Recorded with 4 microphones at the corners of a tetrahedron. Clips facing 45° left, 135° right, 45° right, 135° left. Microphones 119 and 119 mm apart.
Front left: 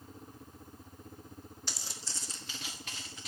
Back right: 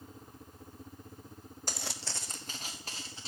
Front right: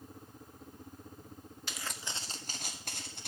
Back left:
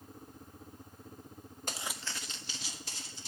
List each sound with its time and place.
1.7 s footsteps: straight behind, 0.6 m; by 3.3 s 75° right, 2.5 m